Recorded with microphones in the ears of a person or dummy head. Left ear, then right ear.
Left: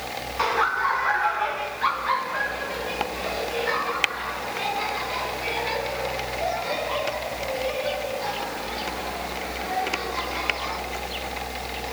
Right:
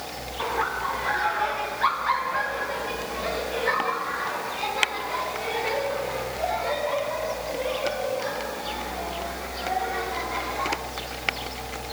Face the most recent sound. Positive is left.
turn(degrees=-30)  # may be behind; listen again after turning